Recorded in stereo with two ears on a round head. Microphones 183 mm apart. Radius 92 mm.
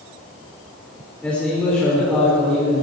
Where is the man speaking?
5° left (ahead or behind), 4.5 m.